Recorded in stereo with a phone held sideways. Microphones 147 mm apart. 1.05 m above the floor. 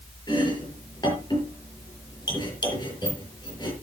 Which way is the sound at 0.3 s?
30° left (ahead or behind).